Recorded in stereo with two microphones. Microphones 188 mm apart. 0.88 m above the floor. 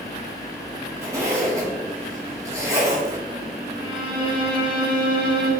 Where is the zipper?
15° right (ahead or behind), 1.4 m.